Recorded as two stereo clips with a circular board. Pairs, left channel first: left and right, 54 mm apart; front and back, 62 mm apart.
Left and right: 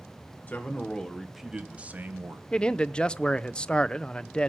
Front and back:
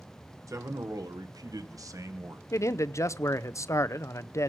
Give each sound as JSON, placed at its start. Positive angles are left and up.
{"t": 0.5, "sound": "a man speaking", "azimuth_deg": 150, "distance_m": 2.0}
{"t": 2.5, "sound": "a man speaking", "azimuth_deg": 20, "distance_m": 0.6}